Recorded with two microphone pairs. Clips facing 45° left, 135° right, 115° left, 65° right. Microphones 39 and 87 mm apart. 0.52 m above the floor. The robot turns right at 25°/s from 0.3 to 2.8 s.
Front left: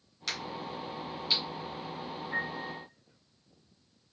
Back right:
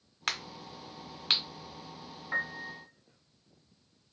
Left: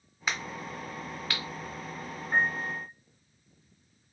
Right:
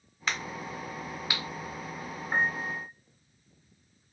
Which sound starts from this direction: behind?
A crack, at 0.3 s.